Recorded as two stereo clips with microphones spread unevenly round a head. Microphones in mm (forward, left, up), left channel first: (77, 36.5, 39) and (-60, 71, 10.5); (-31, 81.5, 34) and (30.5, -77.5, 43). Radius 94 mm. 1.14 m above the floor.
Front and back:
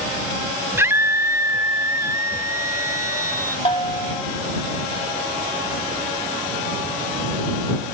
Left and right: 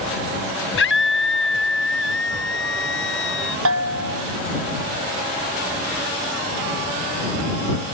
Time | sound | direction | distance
0.8 | a scream | 90° left | ?
3.6 | a bell | 75° right | ?